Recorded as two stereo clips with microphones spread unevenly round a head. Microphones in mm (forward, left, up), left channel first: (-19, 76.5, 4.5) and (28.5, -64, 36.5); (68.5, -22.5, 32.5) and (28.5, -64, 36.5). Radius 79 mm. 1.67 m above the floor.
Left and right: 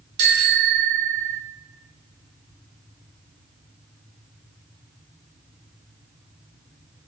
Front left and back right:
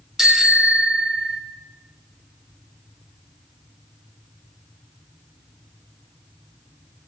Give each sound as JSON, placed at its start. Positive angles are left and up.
{"t": 0.2, "sound": "a bicycle bell", "azimuth_deg": -50, "distance_m": 4.0}